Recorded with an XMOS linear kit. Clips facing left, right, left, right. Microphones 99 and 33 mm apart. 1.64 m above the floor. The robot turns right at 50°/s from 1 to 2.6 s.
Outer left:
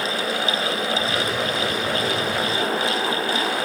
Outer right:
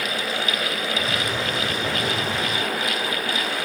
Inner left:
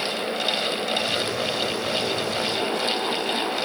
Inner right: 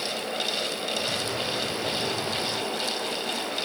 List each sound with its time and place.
Only background noise.